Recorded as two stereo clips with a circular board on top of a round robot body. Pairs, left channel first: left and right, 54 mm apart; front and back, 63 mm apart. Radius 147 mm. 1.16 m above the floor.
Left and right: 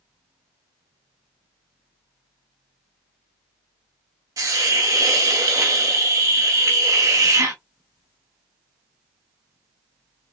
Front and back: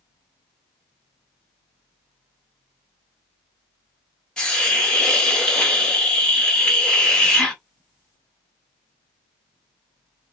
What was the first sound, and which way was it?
A hiss, 75° right.